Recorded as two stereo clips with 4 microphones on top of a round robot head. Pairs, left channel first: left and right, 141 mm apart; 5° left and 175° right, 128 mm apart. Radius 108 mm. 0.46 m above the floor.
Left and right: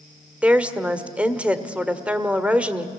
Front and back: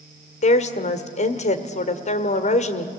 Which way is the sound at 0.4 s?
10° right.